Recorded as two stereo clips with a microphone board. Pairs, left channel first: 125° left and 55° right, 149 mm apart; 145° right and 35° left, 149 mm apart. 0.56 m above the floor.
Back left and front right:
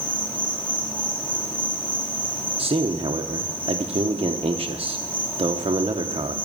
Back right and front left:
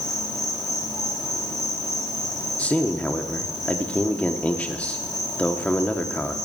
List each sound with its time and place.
0.0 s an insect: 170° right, 2 m
2.6 s a man speaking: 70° right, 0.9 m